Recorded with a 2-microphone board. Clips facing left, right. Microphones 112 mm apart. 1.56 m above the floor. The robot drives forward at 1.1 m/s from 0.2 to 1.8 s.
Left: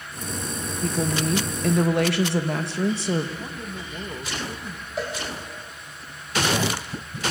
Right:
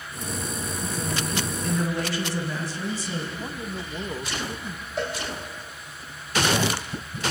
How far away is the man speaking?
About 1.6 m.